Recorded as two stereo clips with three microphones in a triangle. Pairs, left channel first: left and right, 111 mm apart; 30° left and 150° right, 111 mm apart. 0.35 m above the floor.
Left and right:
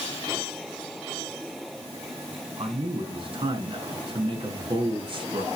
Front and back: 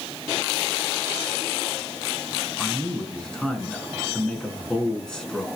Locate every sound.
2.6 s a man speaking: 55° right, 3.5 m